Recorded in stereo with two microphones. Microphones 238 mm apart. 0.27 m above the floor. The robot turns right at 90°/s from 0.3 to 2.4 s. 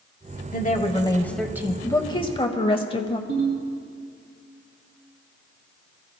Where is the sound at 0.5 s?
100° left, 1.2 m; by 1.7 s 150° right, 1.2 m.